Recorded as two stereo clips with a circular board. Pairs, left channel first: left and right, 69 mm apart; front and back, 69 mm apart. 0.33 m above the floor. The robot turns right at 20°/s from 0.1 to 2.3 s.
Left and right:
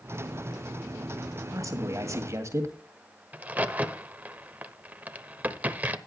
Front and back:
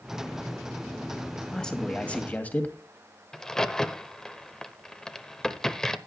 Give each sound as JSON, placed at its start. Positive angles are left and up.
{"t": 1.5, "sound": "a man speaking", "azimuth_deg": -75, "distance_m": 2.0}
{"t": 3.3, "sound": "a crack", "azimuth_deg": -70, "distance_m": 0.9}